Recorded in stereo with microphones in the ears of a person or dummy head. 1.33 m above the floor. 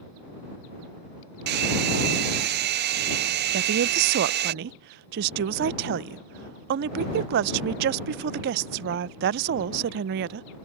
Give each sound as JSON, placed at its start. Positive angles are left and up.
{"t": 1.5, "sound": "a hair dryer", "side_deg": -45}
{"t": 3.5, "sound": "a woman speaking", "side_deg": -55}